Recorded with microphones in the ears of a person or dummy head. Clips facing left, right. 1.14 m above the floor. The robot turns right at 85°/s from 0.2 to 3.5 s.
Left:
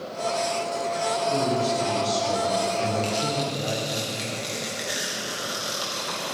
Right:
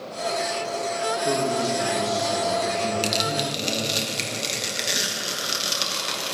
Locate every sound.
1.2 s a man speaking: 60° right, 2.5 m; by 4.0 s 130° left, 2.5 m
3.0 s tearing paper: 75° right, 1.3 m; by 6.4 s 35° right, 1.3 m